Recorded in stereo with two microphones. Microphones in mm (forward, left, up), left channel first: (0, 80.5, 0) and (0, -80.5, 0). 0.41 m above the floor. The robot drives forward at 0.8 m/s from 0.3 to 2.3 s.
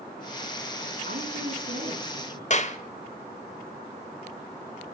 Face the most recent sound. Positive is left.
turn(degrees=45)  # may be behind; listen again after turning